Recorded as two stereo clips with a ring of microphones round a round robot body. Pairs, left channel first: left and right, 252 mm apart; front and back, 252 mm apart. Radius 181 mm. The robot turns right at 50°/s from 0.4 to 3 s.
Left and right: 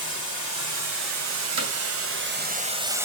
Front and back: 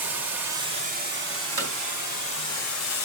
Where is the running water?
140° right, 1.7 m; by 3.0 s 10° right, 1.7 m.